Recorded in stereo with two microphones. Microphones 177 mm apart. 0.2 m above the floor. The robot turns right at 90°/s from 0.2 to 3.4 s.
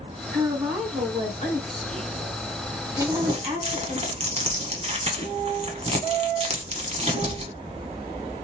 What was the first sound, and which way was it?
A woman speaking, 40° right.